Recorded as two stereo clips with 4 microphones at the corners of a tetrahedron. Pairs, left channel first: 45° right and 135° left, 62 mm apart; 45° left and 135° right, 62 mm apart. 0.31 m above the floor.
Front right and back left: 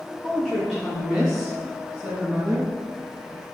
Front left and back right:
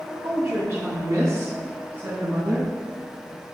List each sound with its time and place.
0.2 s a woman speaking: 125° right, 2.5 m; by 2.7 s straight behind, 3.5 m